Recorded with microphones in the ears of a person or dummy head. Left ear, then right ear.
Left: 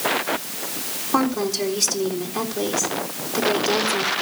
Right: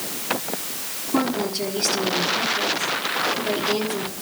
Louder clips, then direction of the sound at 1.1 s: Left 2 dB; 45° left (ahead or behind).